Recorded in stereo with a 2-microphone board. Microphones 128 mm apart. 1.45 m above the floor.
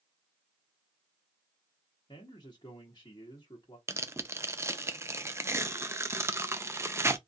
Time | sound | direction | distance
2.1 | a man speaking | 35° left (ahead or behind) | 1.0 m
3.9 | tearing paper | 20° right (ahead or behind) | 0.5 m